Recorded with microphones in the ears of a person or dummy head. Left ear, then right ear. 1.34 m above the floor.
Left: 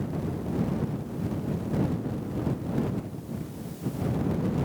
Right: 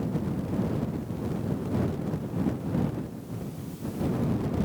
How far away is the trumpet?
No trumpet in this recording.